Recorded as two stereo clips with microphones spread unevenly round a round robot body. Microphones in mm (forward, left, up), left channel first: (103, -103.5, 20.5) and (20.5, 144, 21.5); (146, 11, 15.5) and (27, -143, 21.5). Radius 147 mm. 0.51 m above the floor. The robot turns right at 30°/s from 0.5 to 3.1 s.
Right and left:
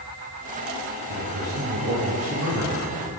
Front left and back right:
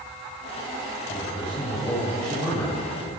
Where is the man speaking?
115° left, 6.5 m; by 2.8 s 165° left, 6.5 m.